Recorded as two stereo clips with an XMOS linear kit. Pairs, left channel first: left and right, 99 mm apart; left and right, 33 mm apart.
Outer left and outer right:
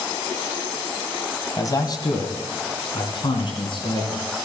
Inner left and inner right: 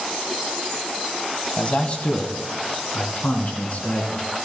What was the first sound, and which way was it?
A man speaking, 35° left (ahead or behind).